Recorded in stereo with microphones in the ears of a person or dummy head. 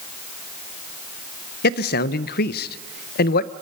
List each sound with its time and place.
1.6 s a man speaking: 55° left (ahead or behind), 0.7 m